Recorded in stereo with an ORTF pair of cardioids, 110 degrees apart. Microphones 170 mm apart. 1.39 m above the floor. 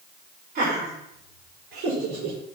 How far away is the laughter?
About 4.5 m.